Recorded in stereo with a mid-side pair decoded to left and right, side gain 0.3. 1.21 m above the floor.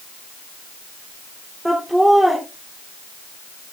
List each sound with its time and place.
1.6 s laughter: 10° right, 3 m